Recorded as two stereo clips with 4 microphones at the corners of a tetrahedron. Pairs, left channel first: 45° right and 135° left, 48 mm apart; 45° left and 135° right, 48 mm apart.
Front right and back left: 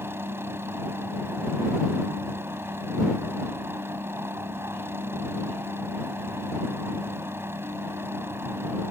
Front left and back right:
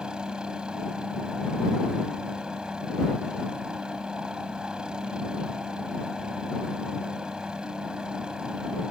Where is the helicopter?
155° left.